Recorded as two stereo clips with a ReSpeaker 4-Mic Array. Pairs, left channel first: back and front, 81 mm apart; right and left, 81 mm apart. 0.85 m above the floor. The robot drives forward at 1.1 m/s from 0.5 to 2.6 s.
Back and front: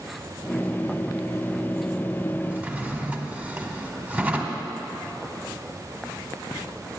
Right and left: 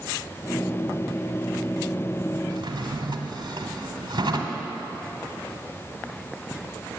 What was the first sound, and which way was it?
A drawer, 70° left.